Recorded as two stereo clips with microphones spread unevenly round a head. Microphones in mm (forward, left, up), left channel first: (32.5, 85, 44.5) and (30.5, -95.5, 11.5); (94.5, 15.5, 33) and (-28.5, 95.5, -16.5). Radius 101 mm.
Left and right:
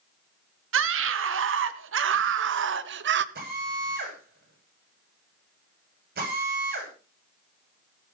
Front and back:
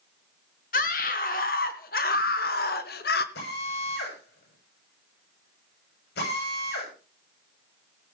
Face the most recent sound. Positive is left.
turn(degrees=-50)